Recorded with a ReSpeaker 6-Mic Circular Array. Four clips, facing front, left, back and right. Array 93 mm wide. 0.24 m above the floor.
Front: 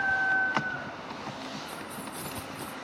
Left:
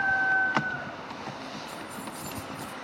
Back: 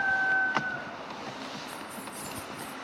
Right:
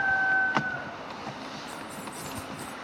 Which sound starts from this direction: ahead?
Keys jangling, at 1.7 s.